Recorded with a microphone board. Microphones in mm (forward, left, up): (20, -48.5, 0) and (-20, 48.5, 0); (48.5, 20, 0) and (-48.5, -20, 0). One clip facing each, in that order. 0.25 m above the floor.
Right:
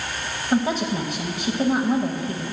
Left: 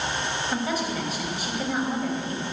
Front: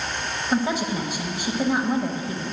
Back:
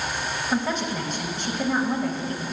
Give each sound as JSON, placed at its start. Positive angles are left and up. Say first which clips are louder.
{"t": 0.5, "sound": "a woman speaking", "louder": "right 8 dB, front 3 dB", "azimuth_deg": -45, "distance_m": 1.0}